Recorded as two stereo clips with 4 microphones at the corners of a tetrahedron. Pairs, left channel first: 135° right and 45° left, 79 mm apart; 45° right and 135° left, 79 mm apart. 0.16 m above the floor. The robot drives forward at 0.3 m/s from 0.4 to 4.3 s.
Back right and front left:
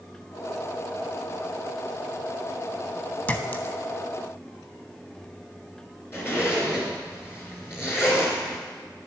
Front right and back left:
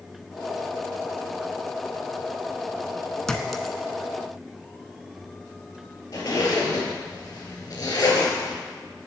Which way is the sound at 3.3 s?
115° right.